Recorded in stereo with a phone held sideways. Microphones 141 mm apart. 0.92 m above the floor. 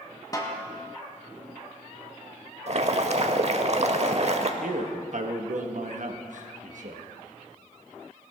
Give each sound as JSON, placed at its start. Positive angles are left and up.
{"t": 0.3, "sound": "a snare drum", "side_deg": 25, "distance_m": 1.4}
{"t": 2.7, "sound": "boiling", "side_deg": -50, "distance_m": 0.8}
{"t": 4.6, "sound": "a man speaking", "side_deg": -65, "distance_m": 1.2}